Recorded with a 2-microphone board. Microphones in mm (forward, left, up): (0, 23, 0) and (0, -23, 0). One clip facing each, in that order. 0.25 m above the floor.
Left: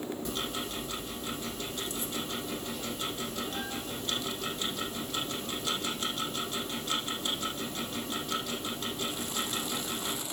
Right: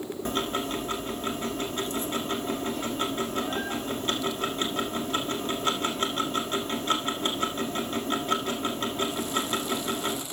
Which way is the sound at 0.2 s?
45° right (ahead or behind).